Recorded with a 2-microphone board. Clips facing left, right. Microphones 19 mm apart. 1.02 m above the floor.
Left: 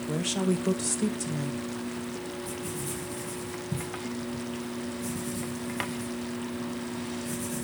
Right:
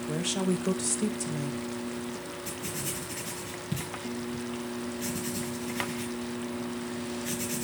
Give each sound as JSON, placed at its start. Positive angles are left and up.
{"t": 0.1, "sound": "a woman speaking", "side_deg": 0, "distance_m": 1.1}
{"t": 2.5, "sound": "writing", "side_deg": -60, "distance_m": 3.0}